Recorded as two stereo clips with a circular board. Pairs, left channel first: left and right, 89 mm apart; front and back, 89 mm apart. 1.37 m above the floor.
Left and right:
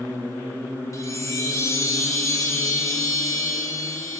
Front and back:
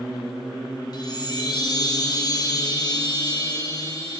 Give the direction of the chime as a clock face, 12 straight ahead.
11 o'clock.